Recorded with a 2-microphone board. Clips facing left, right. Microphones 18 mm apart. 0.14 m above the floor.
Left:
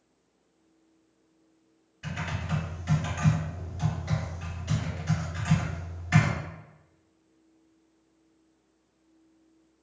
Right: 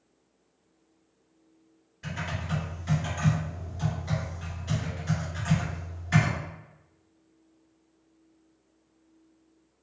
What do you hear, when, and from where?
2.0 s typing on a keyboard: 5° left (ahead or behind), 1.8 m